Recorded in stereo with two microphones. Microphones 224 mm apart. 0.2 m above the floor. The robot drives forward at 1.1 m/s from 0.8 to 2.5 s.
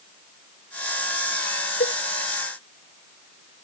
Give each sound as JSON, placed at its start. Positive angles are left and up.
{"t": 1.8, "sound": "a cowbell", "side_deg": 55}